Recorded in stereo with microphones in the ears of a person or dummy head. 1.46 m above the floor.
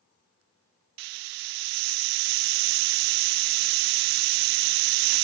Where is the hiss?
45° right (ahead or behind), 0.5 m.